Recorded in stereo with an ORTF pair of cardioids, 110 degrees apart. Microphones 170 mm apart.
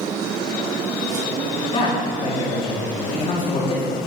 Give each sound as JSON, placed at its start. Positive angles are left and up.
{"t": 1.7, "sound": "a man speaking", "azimuth_deg": 35, "distance_m": 3.0}